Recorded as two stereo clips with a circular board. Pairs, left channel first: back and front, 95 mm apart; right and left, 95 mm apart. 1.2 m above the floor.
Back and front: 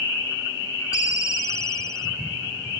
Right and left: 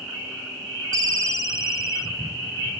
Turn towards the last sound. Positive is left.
turn(degrees=135)